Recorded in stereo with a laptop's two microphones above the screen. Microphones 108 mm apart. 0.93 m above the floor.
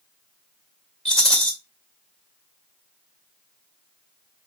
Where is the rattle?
10° left (ahead or behind), 2 m.